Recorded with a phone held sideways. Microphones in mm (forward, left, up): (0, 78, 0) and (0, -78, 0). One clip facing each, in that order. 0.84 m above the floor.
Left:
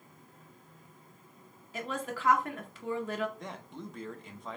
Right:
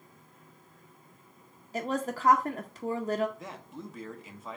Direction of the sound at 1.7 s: 40° right (ahead or behind).